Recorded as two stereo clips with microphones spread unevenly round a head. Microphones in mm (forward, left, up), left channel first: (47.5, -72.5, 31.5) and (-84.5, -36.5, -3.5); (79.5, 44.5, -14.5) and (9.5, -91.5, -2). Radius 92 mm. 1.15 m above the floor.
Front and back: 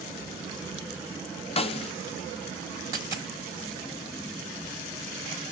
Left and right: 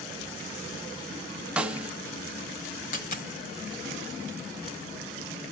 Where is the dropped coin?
85° left, 1.3 m.